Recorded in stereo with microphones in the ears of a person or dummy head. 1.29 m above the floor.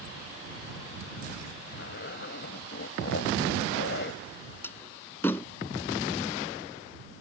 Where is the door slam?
10° left (ahead or behind).